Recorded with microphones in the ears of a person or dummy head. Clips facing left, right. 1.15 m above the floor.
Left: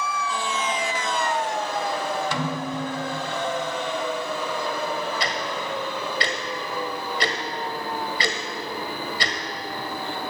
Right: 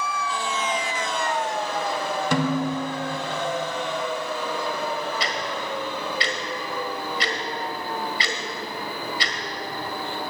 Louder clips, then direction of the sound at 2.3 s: Right 5 dB; 45° right (ahead or behind).